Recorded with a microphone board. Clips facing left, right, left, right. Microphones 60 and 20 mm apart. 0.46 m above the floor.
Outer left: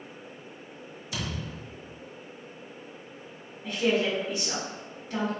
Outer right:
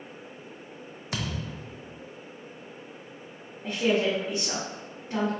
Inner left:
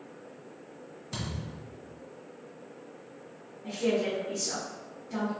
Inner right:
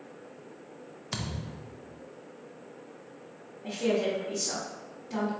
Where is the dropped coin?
No dropped coin in this recording.